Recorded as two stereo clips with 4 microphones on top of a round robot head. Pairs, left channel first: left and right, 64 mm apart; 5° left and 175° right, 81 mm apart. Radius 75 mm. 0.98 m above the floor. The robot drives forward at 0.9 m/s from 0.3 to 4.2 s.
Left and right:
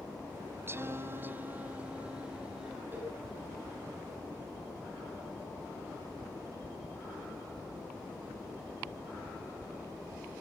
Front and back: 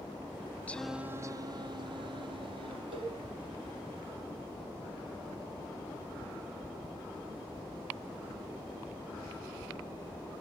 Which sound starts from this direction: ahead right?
Singing, at 0.7 s.